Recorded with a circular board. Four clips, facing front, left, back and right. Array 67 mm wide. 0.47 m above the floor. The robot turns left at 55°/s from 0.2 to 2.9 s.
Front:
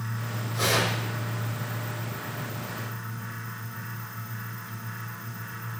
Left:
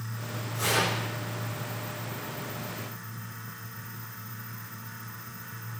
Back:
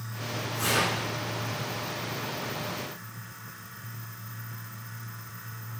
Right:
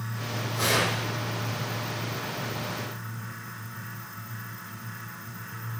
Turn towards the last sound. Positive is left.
turn(degrees=-150)